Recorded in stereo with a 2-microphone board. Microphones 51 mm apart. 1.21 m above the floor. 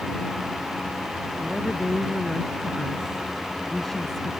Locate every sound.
1.4 s a woman speaking: centre (ahead or behind); by 4.3 s 5° left (ahead or behind)